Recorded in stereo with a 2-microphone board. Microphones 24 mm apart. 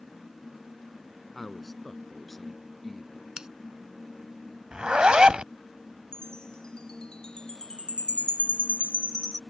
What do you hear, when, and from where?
1.4 s a man speaking: centre (ahead or behind); by 3.3 s 5° left (ahead or behind)
3.4 s scissors: 30° right (ahead or behind)
4.7 s a zipper: 45° right (ahead or behind)
6.1 s a chime: 40° left (ahead or behind)